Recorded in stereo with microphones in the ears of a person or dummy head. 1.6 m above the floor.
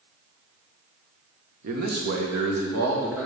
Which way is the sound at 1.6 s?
55° right (ahead or behind).